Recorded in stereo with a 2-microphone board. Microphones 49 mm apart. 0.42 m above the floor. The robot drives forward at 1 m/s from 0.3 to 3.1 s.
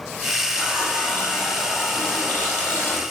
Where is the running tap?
35° left (ahead or behind), 7 m; by 3.0 s 25° left (ahead or behind), 9 m.